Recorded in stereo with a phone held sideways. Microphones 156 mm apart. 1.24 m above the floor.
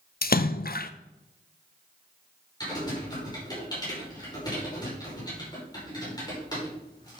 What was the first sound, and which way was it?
A splash, 65° left (ahead or behind).